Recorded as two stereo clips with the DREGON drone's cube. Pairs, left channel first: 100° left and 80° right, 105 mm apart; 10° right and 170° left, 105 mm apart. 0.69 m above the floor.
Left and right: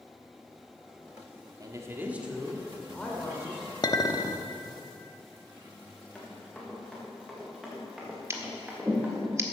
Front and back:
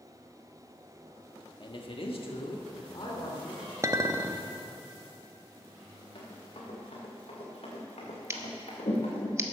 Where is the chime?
No chime in this recording.